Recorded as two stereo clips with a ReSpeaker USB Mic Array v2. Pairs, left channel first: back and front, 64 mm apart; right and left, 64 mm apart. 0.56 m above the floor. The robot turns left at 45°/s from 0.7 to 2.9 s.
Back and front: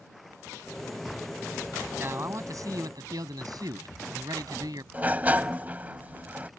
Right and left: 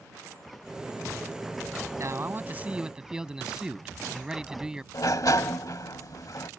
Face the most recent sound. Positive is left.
turn(degrees=-65)